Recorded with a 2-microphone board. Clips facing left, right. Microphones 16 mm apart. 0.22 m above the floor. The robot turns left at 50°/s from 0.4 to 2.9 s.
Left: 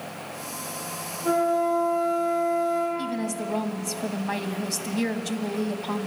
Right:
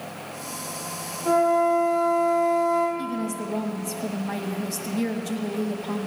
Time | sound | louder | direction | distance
1.2 | a flute | right 3 dB | 30° left | 8 m
3.0 | a woman speaking | even | 35° left (ahead or behind) | 1.2 m